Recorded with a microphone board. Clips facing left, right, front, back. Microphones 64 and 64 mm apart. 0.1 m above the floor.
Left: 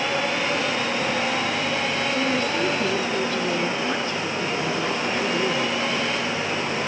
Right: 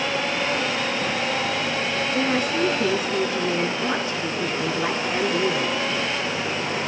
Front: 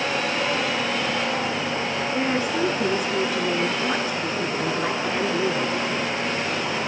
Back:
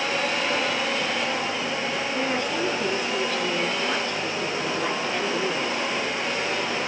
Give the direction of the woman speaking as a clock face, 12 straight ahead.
2 o'clock.